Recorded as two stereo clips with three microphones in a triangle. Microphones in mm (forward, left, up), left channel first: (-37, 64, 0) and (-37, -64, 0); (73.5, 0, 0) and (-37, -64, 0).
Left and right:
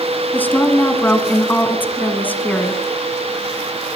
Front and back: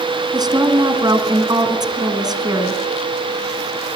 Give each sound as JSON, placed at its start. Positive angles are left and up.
{"t": 0.3, "sound": "a woman speaking", "azimuth_deg": 160, "distance_m": 1.8}